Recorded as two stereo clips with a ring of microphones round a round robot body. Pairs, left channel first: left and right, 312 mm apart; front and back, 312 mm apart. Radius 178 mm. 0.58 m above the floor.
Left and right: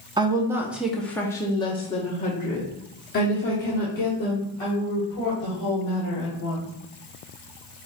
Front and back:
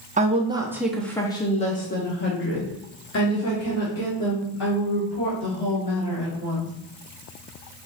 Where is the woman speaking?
150° right, 0.9 m; by 6.7 s 35° left, 3 m.